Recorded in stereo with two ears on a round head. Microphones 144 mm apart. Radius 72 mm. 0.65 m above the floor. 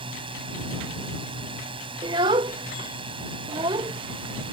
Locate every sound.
0.0 s a drone: 35° right (ahead or behind)
2.0 s a child speaking: 30° right (ahead or behind)